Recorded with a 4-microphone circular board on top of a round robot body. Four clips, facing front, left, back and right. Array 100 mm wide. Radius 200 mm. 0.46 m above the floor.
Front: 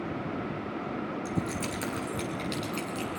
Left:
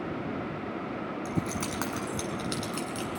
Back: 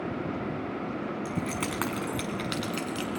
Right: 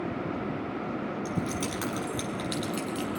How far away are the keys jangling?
About 5 m.